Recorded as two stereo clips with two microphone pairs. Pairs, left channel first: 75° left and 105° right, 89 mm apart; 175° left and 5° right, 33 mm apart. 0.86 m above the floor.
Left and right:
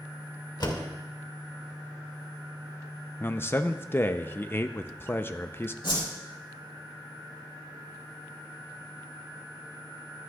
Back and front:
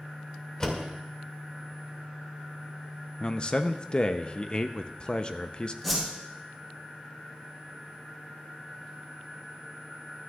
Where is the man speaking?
130° left, 0.5 m.